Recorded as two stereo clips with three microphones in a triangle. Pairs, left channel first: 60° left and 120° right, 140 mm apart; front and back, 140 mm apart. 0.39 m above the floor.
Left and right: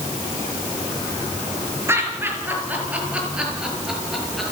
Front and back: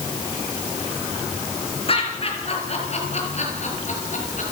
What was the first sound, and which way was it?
Laughter, 45° right.